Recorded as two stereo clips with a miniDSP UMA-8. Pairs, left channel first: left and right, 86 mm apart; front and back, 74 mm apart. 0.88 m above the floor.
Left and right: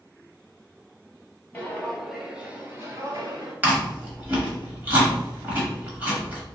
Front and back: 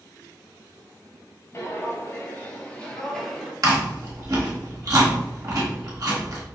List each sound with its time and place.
1.5 s footsteps: 30° left, 1.1 m; by 3.5 s 90° right, 1.2 m
3.6 s chewing: 155° right, 1.2 m